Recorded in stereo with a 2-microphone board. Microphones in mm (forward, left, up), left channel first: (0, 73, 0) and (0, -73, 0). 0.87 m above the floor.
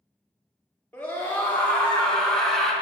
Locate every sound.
0.9 s a scream: 10° left (ahead or behind), 2.5 m; by 2.7 s centre (ahead or behind), 1.4 m